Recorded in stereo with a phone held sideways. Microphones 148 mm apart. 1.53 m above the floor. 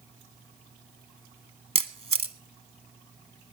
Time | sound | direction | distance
1.8 | a camera shutter | 45° right (ahead or behind) | 1.2 m